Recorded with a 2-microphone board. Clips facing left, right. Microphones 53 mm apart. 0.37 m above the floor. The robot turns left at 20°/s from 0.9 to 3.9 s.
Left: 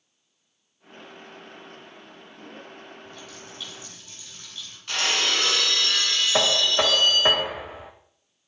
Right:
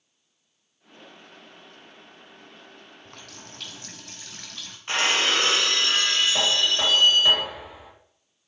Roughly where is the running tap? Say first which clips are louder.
Left 3 dB; right.